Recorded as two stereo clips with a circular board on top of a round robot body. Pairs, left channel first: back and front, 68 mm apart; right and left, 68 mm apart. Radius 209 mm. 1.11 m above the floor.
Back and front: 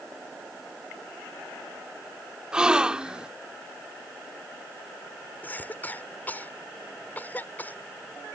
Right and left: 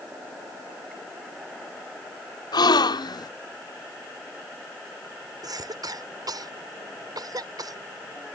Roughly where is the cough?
Behind left.